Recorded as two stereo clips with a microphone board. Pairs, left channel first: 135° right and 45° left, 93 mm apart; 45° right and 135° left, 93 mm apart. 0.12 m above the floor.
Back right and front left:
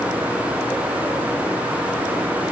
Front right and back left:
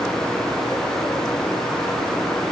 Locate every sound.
Only background noise.